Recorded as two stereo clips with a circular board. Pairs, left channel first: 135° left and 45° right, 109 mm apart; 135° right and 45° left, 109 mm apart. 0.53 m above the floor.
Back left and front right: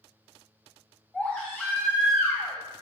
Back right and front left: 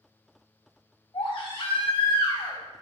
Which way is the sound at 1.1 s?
150° right.